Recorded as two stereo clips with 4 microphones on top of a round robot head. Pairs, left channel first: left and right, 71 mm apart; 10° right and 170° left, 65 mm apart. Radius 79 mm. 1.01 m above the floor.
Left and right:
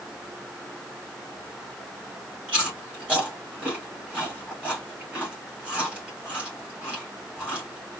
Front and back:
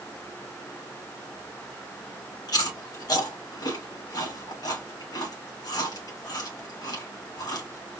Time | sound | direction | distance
2.5 | chewing | 20° right | 2.5 m